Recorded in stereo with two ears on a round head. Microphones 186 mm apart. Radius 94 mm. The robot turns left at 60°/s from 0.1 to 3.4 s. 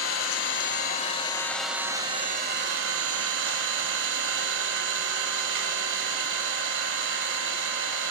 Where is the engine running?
90° left, 2 m; by 8.1 s 105° right, 2 m.